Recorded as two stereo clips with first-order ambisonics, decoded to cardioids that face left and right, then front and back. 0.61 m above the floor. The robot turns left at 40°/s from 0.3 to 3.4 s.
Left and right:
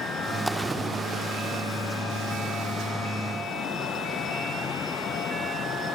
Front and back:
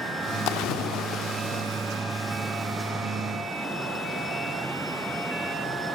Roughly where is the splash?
Ahead.